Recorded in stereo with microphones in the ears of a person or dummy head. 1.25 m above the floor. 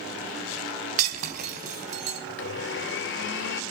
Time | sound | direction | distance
1.0 | breaking glass | 45° right (ahead or behind) | 4 m
2.3 | a blender | 55° left (ahead or behind) | 1.4 m